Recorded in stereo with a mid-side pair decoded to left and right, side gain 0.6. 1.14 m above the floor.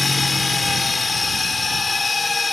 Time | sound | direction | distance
0.0 | a machine running | 20° left | ?